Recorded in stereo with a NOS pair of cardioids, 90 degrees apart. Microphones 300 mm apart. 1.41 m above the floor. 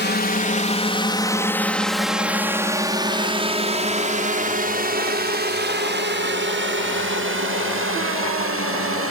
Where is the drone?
35° left; by 9.1 s 45° right.